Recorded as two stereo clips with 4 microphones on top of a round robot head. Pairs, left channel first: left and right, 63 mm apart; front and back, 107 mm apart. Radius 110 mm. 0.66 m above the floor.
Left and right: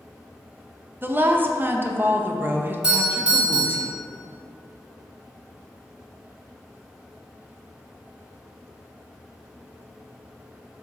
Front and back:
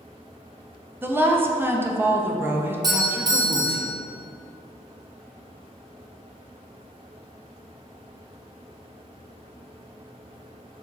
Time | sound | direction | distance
1.0 | a woman speaking | 120° right | 0.6 m
2.8 | a doorbell | 155° right | 1.2 m